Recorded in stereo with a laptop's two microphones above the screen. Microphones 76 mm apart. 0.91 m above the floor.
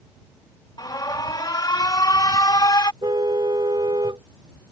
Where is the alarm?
60° left (ahead or behind).